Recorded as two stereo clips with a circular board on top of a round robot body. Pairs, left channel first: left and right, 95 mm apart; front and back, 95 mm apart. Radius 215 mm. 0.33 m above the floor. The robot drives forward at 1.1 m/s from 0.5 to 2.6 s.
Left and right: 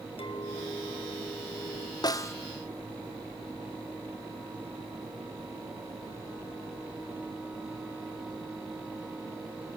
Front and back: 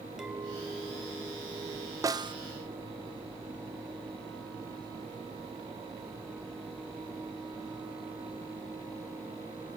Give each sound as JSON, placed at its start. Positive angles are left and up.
{"t": 0.2, "sound": "a clink", "azimuth_deg": 95, "distance_m": 2.0}
{"t": 2.0, "sound": "a snare drum", "azimuth_deg": 130, "distance_m": 0.7}